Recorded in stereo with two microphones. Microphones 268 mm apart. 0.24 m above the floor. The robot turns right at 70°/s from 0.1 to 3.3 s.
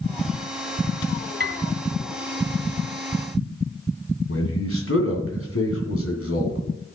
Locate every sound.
1.4 s a piano: 40° right (ahead or behind), 1.1 m; by 1.6 s 45° right (ahead or behind), 1.1 m
4.3 s a man speaking: 55° left (ahead or behind), 2.5 m